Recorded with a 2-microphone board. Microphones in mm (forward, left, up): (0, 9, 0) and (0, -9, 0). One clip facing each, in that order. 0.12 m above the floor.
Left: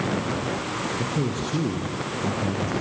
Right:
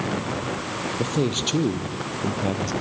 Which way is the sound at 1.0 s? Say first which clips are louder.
Right 3 dB; 70° right (ahead or behind).